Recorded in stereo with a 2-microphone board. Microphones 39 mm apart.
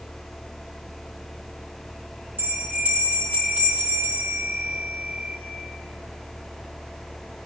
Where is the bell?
55° right (ahead or behind), 6 m.